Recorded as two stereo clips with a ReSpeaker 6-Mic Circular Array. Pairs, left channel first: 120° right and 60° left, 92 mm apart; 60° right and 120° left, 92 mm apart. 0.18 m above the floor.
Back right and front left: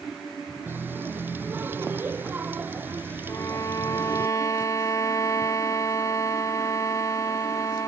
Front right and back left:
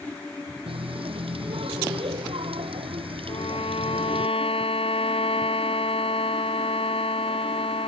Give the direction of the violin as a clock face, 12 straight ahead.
2 o'clock.